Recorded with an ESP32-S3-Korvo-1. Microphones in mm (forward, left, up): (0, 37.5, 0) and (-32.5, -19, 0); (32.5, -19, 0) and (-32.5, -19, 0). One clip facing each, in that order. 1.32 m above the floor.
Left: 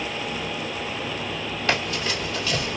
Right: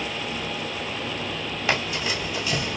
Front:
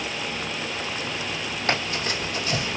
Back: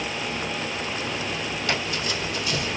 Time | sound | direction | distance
1.7 | running footsteps | 35° right | 3 m